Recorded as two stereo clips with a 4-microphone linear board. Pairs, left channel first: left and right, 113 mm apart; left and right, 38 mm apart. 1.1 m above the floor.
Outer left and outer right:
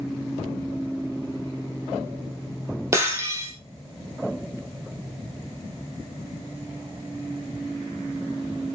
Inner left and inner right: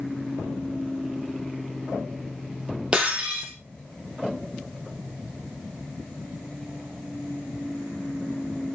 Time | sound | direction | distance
2.9 | breaking glass | 25° right (ahead or behind) | 4 m